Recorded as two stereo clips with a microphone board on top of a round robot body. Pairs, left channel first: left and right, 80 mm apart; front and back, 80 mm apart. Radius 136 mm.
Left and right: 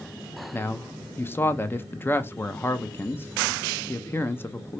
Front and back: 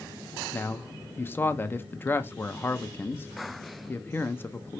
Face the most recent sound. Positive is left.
turn(degrees=45)